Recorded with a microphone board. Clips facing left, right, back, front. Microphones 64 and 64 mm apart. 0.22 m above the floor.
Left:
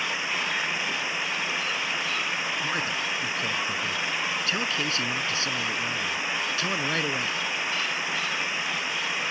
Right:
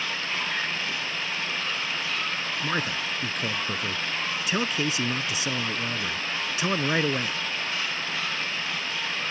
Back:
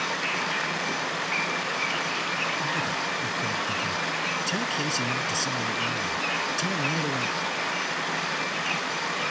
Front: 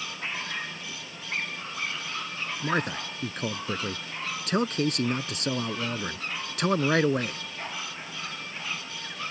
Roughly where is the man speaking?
Ahead.